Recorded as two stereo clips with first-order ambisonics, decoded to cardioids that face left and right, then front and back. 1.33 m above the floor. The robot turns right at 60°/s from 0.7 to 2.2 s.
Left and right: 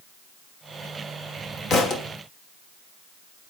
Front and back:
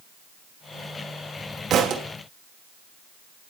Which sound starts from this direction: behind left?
A thud, at 1.7 s.